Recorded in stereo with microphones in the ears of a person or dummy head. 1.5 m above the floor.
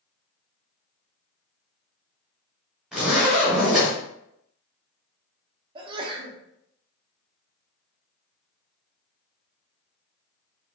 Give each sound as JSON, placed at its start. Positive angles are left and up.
{"t": 2.9, "sound": "a zipper", "side_deg": 0, "distance_m": 1.2}
{"t": 5.8, "sound": "a sneeze", "side_deg": -30, "distance_m": 0.8}